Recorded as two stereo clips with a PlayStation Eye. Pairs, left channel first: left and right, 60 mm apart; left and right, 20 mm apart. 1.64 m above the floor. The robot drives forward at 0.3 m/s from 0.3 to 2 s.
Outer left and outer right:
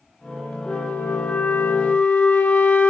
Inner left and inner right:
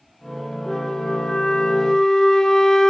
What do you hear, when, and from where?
0.7 s a flute: 20° left (ahead or behind), 1.2 m